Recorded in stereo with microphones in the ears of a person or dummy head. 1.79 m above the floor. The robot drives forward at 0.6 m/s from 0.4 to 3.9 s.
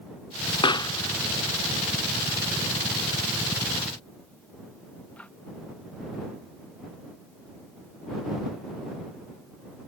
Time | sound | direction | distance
0.6 | a pop | 25° left (ahead or behind) | ?